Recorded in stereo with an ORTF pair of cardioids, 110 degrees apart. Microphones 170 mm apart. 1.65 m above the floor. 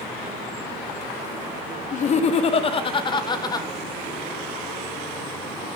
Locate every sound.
1.9 s laughter: 45° left, 1.3 m; by 3.7 s 20° left, 2.0 m